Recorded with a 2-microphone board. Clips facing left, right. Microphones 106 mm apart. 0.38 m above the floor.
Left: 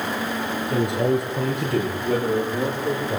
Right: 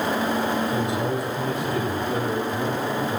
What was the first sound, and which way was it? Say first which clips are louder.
A man speaking: left 3 dB; 55° left (ahead or behind).